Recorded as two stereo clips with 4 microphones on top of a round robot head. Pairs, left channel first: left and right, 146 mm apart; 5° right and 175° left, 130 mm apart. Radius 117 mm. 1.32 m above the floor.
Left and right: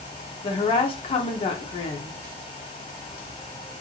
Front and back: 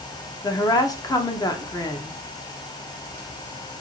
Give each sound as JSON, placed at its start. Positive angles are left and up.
{"t": 0.4, "sound": "a woman speaking", "azimuth_deg": 50, "distance_m": 0.6}